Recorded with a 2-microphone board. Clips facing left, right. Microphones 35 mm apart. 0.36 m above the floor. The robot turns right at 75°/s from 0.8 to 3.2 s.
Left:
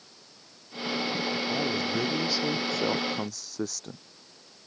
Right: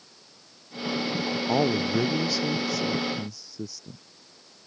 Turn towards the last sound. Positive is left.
turn(degrees=80)